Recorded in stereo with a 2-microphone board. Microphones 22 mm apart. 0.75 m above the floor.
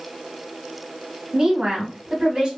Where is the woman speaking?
40° right (ahead or behind), 1.5 m.